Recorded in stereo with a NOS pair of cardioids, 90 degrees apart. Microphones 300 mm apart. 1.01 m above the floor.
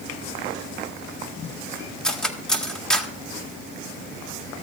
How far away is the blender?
I don't hear a blender.